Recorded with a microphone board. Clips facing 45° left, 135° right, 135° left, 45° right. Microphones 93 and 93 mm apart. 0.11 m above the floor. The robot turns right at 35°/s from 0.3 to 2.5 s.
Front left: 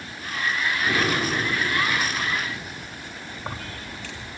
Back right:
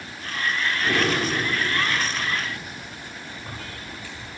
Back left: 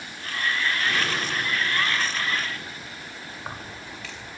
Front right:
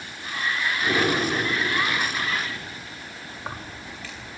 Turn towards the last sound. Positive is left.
turn(degrees=45)